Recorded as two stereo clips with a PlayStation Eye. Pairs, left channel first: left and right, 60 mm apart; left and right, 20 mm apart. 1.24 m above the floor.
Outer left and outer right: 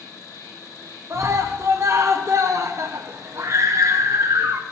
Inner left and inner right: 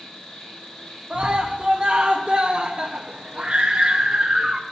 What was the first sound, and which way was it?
An insect, 85° left.